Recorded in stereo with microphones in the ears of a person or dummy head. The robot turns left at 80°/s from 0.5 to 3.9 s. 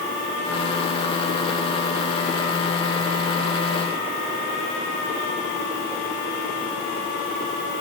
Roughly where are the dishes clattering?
No dishes clattering in this recording.